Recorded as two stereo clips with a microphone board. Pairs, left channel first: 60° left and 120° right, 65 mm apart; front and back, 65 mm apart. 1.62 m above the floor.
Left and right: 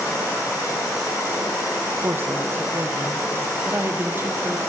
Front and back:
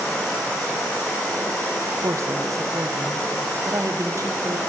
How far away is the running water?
About 3.5 m.